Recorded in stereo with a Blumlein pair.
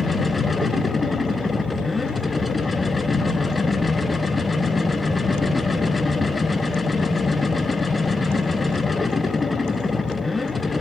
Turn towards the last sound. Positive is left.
turn(degrees=10)